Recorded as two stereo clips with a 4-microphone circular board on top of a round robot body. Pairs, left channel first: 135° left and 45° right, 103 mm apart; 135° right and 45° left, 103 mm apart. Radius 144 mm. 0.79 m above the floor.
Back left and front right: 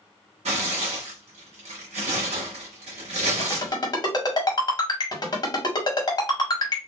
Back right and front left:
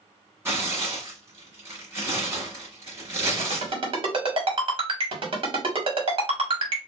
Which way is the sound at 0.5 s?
25° right.